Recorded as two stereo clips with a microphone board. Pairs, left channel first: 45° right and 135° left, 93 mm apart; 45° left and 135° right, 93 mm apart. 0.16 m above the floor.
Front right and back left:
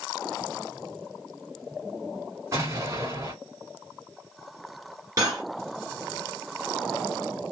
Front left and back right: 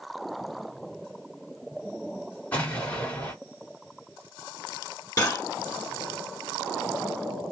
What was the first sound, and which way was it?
An explosion, 110° left.